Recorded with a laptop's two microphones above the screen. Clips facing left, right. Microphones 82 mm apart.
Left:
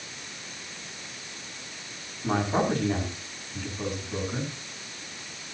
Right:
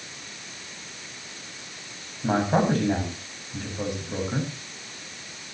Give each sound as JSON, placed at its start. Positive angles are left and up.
{"t": 2.2, "sound": "a man speaking", "side_deg": -60, "distance_m": 7.0}